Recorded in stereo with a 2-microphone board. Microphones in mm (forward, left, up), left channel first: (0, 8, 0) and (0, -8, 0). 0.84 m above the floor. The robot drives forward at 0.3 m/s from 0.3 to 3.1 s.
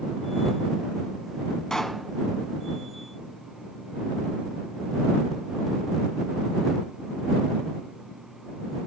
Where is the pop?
40° left (ahead or behind), 2.5 m.